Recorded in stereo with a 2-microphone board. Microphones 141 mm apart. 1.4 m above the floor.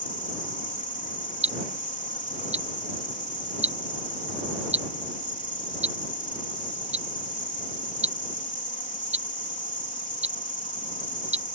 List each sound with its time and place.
0.0 s an insect: 65° left (ahead or behind)
1.4 s ticking: 50° right (ahead or behind)